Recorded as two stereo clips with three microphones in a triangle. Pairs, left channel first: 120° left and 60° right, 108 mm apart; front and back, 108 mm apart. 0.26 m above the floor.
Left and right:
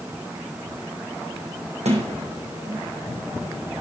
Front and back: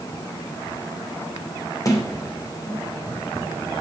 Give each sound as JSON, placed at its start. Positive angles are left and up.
{"t": 1.9, "sound": "a sliding door", "azimuth_deg": -60, "distance_m": 2.0}